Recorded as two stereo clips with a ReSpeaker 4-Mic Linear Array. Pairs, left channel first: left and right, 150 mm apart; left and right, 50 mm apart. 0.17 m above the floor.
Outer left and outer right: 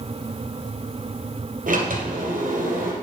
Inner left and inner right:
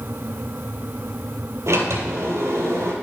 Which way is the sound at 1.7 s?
70° right (ahead or behind).